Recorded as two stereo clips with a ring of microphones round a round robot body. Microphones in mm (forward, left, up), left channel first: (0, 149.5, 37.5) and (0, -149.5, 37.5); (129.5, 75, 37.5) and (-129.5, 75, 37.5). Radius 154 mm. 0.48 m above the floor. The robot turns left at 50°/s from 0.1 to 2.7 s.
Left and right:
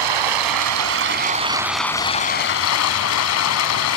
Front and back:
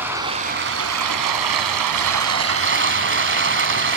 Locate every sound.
0.0 s running water: 95° right, 1.4 m; by 4.0 s 135° left, 1.4 m